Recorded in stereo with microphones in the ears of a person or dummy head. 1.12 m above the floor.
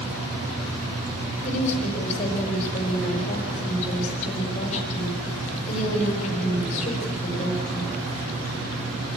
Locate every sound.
1.4 s a woman speaking: 40° left (ahead or behind), 4.5 m